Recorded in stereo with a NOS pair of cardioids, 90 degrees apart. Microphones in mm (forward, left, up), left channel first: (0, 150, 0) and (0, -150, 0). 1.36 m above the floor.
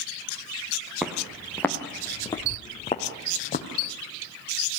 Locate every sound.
1.0 s footsteps: straight ahead, 4.5 m; by 3.7 s 30° left, 4 m